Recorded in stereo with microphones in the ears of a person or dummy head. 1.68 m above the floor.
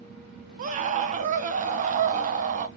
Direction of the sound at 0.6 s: 40° right (ahead or behind).